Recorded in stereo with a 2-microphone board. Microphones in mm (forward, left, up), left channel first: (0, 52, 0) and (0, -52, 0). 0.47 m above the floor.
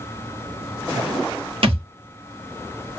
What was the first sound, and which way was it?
A thud, 65° right (ahead or behind).